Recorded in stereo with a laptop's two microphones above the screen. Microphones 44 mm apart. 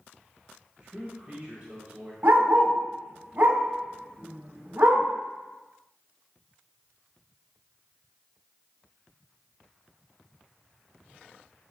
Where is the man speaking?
20° right (ahead or behind), 1.2 m.